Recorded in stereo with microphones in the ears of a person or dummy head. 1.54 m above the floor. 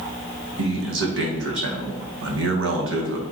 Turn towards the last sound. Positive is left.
turn(degrees=-65)  # may be behind; listen again after turning